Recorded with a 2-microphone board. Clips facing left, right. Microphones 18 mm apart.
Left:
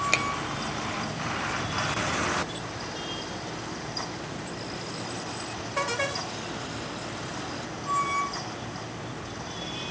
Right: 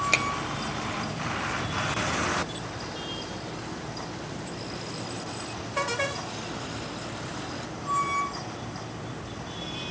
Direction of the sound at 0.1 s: 5° left (ahead or behind).